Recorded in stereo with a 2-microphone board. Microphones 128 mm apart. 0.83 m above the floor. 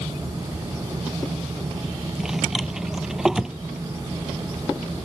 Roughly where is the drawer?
Centre.